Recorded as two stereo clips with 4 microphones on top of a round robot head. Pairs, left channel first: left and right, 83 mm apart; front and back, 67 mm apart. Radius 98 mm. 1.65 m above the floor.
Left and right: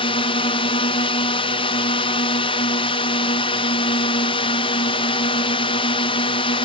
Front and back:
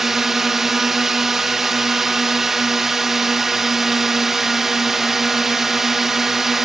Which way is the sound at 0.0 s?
100° left.